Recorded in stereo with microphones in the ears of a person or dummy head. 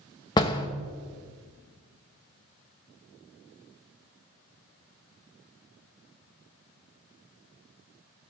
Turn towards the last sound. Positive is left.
turn(degrees=25)  # may be behind; listen again after turning